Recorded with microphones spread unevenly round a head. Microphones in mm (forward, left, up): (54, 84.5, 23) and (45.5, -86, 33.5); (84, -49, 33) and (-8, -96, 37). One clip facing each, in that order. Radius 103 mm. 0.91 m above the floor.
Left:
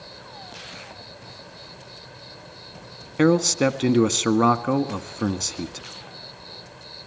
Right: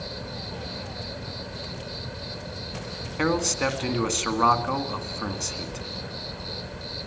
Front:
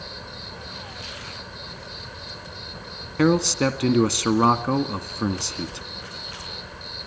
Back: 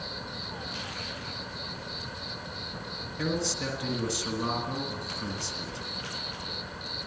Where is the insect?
70° right, 1.9 m.